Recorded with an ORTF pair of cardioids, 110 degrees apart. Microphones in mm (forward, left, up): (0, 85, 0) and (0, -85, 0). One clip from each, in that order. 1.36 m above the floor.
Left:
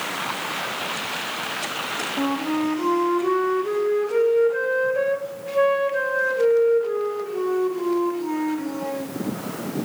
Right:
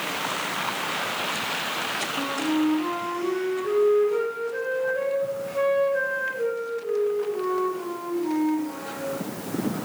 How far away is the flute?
About 1.6 m.